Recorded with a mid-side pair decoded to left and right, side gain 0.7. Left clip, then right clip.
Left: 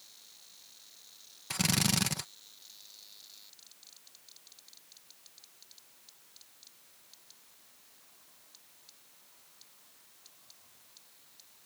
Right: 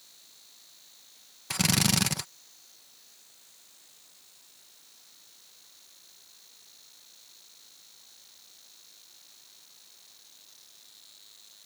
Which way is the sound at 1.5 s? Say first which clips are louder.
Right 4 dB; 15° right.